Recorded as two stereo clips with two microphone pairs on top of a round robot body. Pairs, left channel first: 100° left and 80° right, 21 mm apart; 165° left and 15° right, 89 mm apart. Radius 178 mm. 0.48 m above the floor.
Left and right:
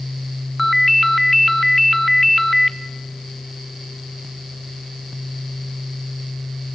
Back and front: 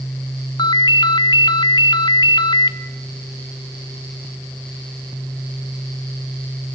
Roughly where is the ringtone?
Behind.